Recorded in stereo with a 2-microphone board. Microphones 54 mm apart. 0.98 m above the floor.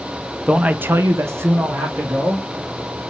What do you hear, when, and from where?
0.5 s a man speaking: 15° right (ahead or behind), 0.7 m; by 2.5 s 40° right (ahead or behind), 1.7 m